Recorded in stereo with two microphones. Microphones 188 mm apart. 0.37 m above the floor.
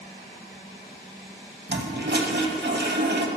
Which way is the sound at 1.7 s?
70° right (ahead or behind).